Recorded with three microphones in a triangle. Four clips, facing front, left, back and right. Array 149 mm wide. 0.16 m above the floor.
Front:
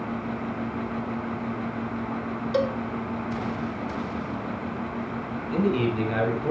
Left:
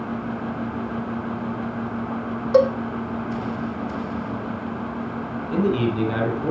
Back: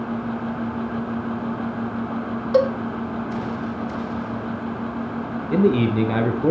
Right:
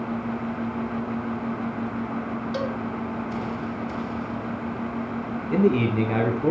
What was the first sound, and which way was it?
A cowbell, 115° left.